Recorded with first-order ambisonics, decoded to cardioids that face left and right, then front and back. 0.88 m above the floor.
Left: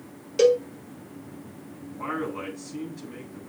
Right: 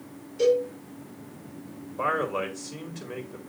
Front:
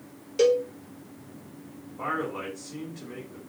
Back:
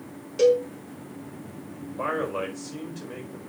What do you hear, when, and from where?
0.4 s a cowbell: 80° left, 1.4 m
2.0 s a man speaking: 105° right, 4.5 m